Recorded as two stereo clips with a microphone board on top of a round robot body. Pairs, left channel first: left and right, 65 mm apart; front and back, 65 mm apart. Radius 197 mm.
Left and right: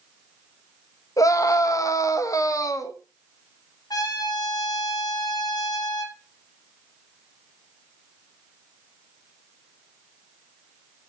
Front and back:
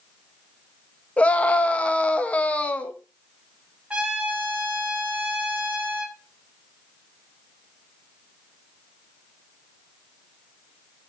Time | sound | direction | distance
1.2 | a scream | 70° left | 1.8 m
3.9 | a trumpet | 105° left | 1.8 m